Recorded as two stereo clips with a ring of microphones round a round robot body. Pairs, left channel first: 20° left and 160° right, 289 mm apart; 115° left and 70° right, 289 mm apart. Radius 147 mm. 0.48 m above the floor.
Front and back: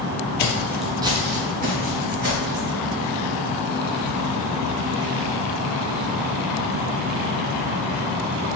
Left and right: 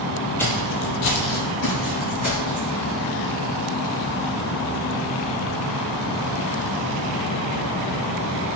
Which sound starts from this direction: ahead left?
Footsteps, at 0.4 s.